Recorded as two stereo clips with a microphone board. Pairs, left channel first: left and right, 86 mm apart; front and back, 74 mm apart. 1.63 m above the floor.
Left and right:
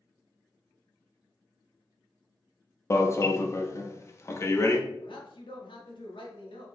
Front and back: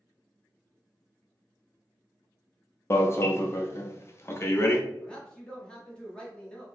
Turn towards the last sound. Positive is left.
turn(degrees=80)